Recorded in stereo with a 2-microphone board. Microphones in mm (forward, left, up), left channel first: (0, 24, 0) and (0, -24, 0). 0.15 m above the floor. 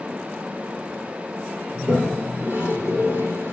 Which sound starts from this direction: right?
A toilet flushing, at 1.7 s.